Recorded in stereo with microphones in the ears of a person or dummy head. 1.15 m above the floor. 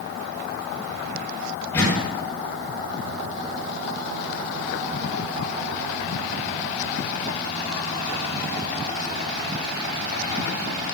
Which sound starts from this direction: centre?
A door slam, at 1.7 s.